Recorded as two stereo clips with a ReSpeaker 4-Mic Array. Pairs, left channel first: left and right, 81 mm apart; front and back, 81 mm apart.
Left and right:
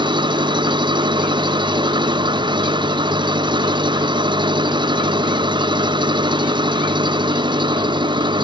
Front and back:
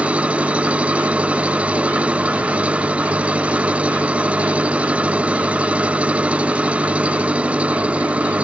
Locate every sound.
0.0 s an engine running: 105° right